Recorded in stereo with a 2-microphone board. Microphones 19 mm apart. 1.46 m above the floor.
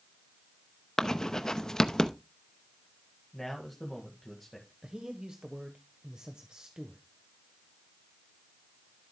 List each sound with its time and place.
1.0 s writing: 30° left (ahead or behind), 0.8 m
3.3 s a man speaking: 10° left (ahead or behind), 1.8 m
4.8 s a man speaking: 40° right (ahead or behind), 1.1 m